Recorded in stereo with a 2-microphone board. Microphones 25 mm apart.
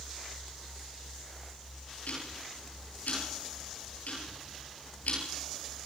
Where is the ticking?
85° left, 8 m.